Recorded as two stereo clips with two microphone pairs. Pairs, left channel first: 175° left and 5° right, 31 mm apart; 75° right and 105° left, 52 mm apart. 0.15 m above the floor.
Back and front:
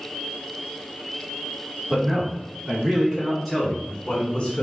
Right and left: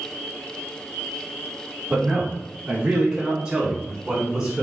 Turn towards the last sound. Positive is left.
turn(degrees=160)